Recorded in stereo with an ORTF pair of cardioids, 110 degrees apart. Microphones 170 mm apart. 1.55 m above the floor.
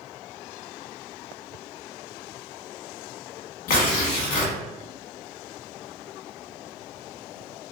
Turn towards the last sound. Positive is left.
turn(degrees=55)